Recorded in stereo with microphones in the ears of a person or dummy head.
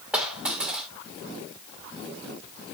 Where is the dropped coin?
5° right (ahead or behind), 1.5 m.